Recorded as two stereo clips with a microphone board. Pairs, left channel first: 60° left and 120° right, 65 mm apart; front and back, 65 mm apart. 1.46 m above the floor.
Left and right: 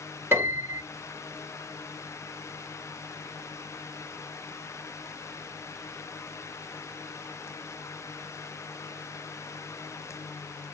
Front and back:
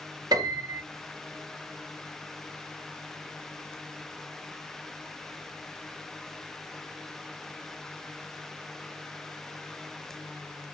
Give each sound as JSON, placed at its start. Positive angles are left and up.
{"t": 0.3, "sound": "a piano", "azimuth_deg": -170, "distance_m": 3.5}